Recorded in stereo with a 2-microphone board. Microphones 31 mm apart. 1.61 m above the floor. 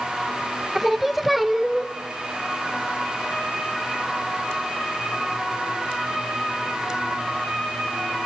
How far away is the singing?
About 0.7 m.